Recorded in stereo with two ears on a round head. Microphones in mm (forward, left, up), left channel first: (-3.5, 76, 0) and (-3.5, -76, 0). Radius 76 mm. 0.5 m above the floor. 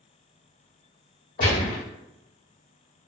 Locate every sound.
1.4 s a gunshot: 50° left (ahead or behind), 1.2 m